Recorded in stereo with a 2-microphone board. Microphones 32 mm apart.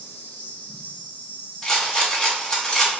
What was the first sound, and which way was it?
An insect, 70° left (ahead or behind).